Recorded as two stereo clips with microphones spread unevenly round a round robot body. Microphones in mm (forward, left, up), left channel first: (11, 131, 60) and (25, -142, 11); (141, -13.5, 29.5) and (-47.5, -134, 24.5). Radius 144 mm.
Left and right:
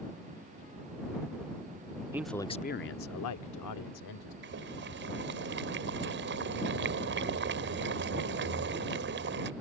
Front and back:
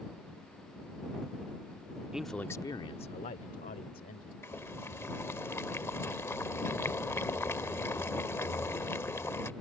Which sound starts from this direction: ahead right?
Boiling, at 4.4 s.